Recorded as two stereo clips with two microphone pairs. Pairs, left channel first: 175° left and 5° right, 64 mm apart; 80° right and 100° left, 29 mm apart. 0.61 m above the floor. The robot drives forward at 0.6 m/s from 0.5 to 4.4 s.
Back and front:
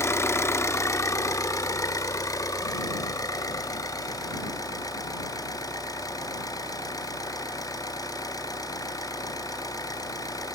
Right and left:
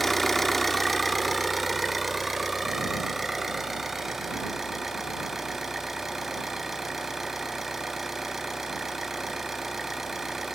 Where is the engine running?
155° right, 0.9 m; by 10.6 s 175° right, 3 m.